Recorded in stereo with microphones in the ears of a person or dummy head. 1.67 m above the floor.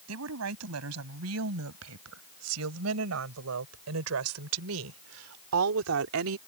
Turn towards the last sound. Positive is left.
turn(degrees=-80)